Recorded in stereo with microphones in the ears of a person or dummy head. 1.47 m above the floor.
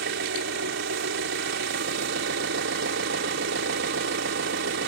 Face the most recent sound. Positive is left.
turn(degrees=-70)  # may be behind; listen again after turning